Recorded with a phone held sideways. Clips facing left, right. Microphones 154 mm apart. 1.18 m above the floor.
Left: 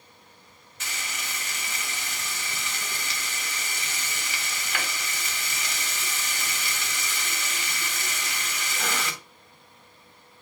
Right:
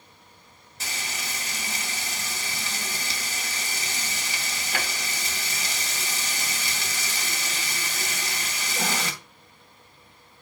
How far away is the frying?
About 2.5 m.